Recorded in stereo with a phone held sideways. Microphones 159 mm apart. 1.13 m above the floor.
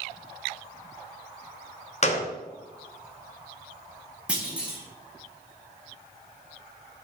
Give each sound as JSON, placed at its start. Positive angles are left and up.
{"t": 2.0, "sound": "a gunshot", "side_deg": 45, "distance_m": 0.7}
{"t": 4.3, "sound": "a clunk", "side_deg": -10, "distance_m": 1.0}